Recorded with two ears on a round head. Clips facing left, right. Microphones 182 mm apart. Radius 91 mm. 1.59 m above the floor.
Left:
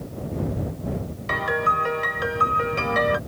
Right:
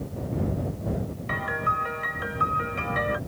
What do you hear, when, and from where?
1.3 s a piano: 60° left (ahead or behind)